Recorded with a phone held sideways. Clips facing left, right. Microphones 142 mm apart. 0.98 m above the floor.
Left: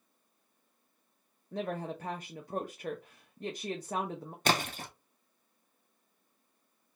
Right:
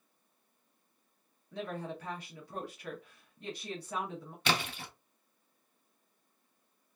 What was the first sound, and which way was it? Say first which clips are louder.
A woman speaking: left 3 dB; 45° left (ahead or behind).